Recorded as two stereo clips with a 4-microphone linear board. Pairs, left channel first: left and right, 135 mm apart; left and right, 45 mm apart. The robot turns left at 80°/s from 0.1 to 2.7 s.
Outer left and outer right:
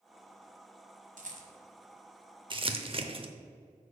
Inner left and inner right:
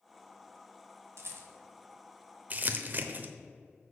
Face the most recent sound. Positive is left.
turn(degrees=-40)  # may be behind; listen again after turning